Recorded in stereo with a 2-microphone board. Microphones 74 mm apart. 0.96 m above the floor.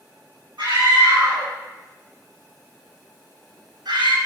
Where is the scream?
85° right, 8.5 m.